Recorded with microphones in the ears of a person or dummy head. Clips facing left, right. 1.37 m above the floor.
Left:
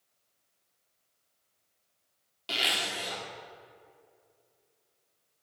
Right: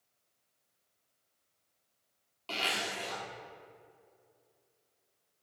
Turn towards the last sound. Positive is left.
turn(degrees=15)  # may be behind; listen again after turning